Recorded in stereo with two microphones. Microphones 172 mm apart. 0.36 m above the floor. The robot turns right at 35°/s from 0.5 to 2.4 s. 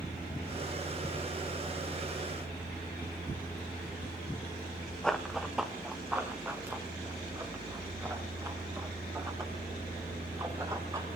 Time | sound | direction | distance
5.0 | running footsteps | 5° left (ahead or behind) | 1.3 m